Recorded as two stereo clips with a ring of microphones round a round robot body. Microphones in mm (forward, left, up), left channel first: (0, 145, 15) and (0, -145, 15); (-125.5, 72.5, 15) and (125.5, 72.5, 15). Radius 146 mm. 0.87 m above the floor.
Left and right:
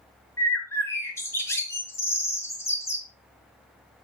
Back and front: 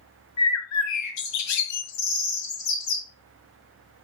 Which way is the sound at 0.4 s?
170° left.